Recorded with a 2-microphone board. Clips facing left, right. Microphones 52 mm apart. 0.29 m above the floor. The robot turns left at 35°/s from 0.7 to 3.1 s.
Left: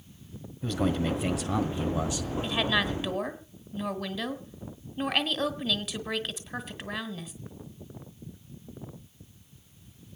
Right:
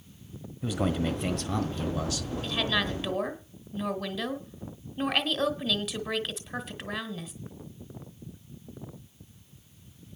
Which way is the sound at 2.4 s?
20° left (ahead or behind).